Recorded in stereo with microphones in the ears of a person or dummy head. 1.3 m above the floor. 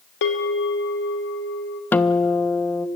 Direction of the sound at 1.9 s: 10° left (ahead or behind).